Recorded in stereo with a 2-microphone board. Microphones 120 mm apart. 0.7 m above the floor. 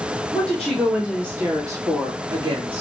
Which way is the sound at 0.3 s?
10° left (ahead or behind).